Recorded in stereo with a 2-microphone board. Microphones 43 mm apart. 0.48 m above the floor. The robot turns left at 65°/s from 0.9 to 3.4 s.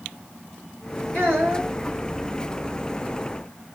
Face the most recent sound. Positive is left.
turn(degrees=160)